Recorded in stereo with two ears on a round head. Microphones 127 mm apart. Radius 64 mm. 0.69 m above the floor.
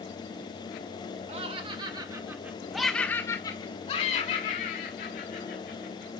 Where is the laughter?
40° right (ahead or behind), 2 m; by 6.1 s 70° left (ahead or behind), 3 m.